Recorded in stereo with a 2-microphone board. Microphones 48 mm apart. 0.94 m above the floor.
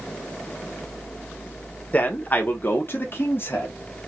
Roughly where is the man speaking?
Left.